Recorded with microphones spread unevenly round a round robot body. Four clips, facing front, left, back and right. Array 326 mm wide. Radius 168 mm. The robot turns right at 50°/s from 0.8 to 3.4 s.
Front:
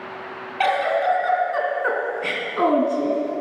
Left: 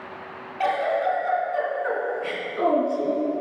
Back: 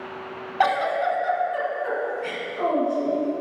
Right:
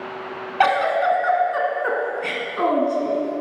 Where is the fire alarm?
I don't hear a fire alarm.